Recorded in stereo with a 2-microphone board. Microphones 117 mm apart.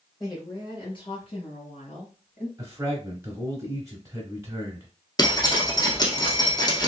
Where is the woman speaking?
30° left (ahead or behind), 2.5 m; by 2.5 s 65° left (ahead or behind), 2.5 m.